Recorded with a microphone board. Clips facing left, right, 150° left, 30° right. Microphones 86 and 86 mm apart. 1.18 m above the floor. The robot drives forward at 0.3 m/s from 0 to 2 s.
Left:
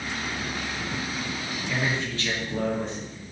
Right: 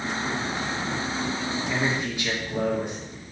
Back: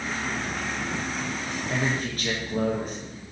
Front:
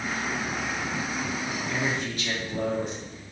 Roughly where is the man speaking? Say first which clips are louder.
Even, back 3 dB; behind.